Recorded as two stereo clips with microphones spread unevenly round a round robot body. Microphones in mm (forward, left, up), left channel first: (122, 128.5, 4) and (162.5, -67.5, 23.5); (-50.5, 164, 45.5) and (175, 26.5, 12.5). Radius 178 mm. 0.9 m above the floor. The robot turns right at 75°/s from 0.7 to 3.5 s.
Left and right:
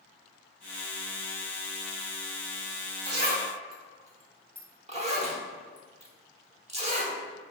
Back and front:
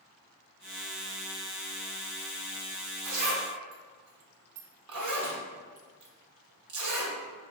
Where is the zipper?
60° right, 0.9 m; by 7.2 s 25° right, 0.9 m.